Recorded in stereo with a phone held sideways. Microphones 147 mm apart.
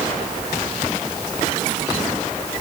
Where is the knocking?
No knocking in this recording.